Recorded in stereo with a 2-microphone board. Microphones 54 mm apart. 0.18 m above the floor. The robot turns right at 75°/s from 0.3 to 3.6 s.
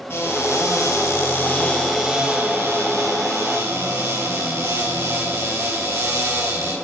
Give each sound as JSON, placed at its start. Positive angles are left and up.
{"t": 0.1, "sound": "a cupboard door", "azimuth_deg": 50, "distance_m": 4.0}